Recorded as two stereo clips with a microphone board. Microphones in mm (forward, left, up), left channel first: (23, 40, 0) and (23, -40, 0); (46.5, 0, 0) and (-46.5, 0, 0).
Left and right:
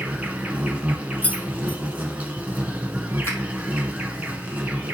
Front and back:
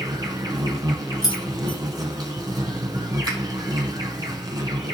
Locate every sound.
0.0 s an insect: 160° right, 1.8 m
1.2 s keys jangling: 25° left, 1.0 m
3.2 s a finger snap: 140° left, 4.5 m